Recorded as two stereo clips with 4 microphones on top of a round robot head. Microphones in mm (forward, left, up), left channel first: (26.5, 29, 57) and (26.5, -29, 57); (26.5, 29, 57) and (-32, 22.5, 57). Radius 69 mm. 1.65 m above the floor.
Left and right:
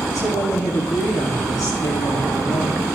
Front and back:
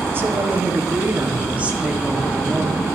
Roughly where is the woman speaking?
Behind left.